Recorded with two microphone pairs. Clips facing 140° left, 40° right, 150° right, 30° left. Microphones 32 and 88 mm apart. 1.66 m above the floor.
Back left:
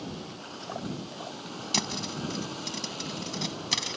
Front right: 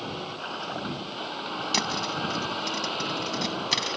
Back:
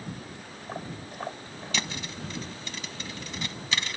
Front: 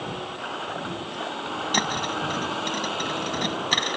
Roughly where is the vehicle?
Ahead.